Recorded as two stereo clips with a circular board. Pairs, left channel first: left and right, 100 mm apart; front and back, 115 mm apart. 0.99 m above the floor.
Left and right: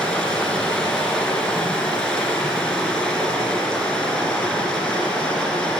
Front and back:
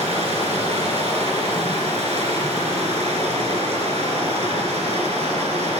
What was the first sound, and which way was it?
Running water, 175° left.